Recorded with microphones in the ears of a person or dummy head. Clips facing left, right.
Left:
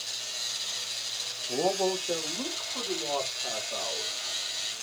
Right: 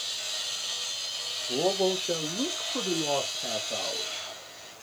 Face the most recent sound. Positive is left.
turn(degrees=-50)  # may be behind; listen again after turning